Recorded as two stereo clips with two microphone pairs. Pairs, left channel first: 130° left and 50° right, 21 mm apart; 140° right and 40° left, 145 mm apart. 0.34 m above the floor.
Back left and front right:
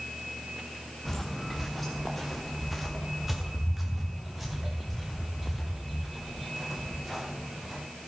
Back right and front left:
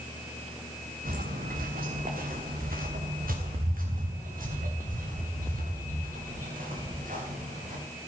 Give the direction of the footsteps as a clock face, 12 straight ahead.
10 o'clock.